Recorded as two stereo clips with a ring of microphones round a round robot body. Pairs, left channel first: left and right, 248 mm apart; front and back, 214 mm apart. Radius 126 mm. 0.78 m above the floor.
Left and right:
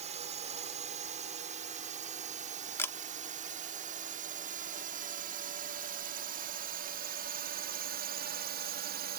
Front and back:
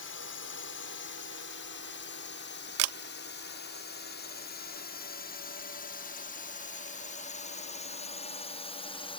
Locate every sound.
0.0 s a drone: 30° right; by 9.2 s 60° right
2.8 s a camera shutter: 170° left